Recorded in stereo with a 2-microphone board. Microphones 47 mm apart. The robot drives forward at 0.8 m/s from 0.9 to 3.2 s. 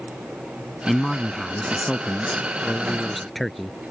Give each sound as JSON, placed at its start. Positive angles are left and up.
{"t": 0.9, "sound": "a man speaking", "side_deg": 0}